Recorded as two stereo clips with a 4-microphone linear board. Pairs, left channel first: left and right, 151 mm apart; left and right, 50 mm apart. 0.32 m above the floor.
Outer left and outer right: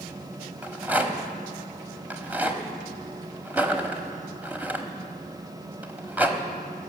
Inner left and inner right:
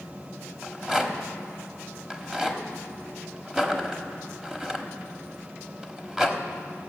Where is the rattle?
10° right (ahead or behind), 1.1 m.